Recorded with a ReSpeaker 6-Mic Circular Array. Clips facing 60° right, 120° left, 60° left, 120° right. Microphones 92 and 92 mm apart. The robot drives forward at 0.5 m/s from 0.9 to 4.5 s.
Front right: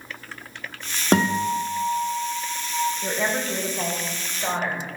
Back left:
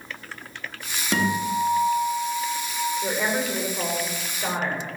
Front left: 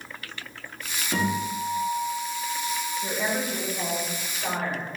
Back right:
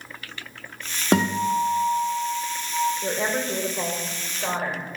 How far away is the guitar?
About 0.9 m.